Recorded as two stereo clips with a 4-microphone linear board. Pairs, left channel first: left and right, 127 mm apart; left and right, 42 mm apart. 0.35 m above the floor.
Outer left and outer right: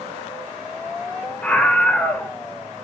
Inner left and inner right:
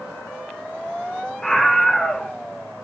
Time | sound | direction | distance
1.4 | a scream | 10° left (ahead or behind) | 1.2 m